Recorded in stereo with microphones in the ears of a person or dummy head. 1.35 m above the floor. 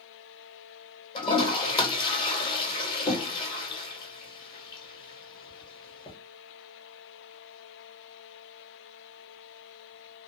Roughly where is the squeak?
No squeak in this recording.